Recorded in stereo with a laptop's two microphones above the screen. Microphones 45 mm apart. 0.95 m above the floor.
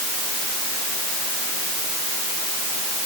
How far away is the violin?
I don't hear a violin.